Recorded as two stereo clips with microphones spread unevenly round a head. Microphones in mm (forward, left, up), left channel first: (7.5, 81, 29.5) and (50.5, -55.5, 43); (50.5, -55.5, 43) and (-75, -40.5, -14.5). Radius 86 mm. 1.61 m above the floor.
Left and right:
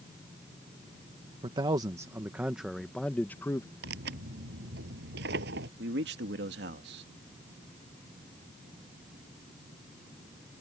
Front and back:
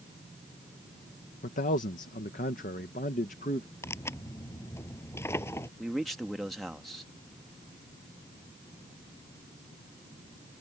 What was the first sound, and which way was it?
A man speaking, 15° right.